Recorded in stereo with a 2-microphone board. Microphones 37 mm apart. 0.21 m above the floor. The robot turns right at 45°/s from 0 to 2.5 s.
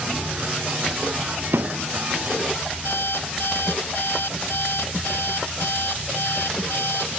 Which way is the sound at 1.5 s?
70° right (ahead or behind).